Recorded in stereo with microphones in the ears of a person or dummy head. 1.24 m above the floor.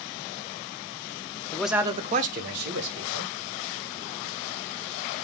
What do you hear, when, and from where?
1.5 s a man speaking: 10° left (ahead or behind), 0.6 m; by 3.3 s 70° right (ahead or behind), 1.6 m